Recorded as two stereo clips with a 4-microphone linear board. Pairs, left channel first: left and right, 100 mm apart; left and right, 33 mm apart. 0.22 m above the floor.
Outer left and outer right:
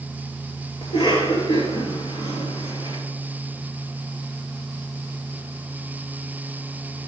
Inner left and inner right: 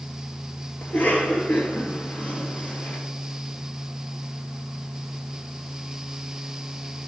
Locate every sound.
0.8 s a cough: 55° left (ahead or behind), 3.5 m